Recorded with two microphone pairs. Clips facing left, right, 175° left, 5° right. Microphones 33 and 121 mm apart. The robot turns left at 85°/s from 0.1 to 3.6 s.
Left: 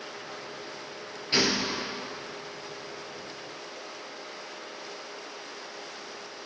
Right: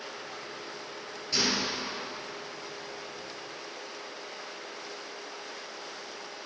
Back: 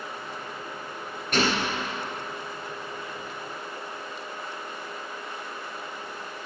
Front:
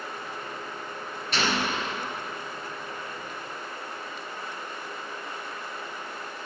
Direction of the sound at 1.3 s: 140° left.